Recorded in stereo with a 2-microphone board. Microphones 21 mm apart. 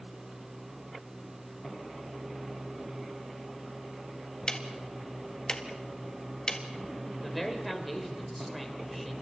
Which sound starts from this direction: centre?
A man speaking, at 7.2 s.